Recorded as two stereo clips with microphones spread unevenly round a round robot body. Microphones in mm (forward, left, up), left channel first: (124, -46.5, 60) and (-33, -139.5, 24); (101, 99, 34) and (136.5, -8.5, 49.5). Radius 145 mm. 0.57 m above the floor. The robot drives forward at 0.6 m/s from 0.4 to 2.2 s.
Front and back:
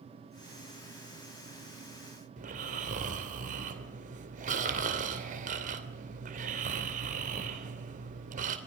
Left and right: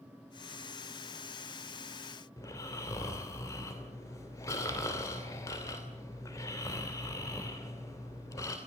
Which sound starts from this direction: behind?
Snoring, at 2.4 s.